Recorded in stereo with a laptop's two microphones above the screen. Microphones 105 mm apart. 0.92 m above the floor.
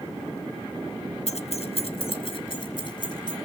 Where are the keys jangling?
85° left, 0.7 m; by 3.4 s 45° left (ahead or behind), 2.5 m.